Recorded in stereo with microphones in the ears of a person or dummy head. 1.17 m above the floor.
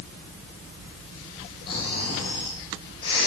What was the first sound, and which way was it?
Snoring, 25° left (ahead or behind).